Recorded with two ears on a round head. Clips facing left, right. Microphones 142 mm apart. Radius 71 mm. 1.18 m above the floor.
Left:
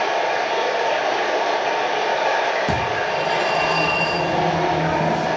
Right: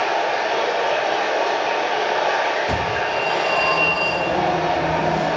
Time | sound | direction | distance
0.0 | running water | 5° left (ahead or behind) | 1.0 m
2.7 | a phone ringing | 85° left | 1.2 m